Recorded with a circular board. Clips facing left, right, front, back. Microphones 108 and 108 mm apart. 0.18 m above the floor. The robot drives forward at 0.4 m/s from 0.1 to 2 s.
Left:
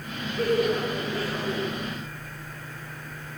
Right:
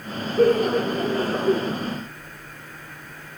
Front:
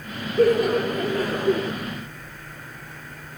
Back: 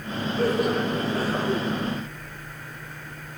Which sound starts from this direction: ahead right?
Laughter, at 0.4 s.